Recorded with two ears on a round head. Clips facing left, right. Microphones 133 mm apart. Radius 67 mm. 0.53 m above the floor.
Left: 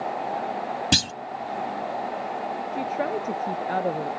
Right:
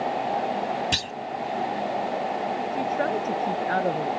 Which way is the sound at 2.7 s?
5° left (ahead or behind).